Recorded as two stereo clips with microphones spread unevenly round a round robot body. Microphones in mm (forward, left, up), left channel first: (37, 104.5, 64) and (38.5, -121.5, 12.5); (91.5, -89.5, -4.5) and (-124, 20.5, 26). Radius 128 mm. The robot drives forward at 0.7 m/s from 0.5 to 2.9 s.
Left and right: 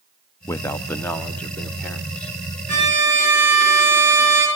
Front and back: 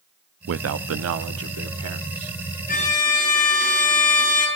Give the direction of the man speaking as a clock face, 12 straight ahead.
6 o'clock.